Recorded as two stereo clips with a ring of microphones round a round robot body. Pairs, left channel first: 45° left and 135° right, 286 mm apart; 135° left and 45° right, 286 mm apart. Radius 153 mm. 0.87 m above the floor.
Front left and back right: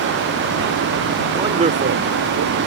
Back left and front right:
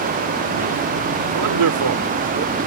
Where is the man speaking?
55° right; by 2.6 s 105° right.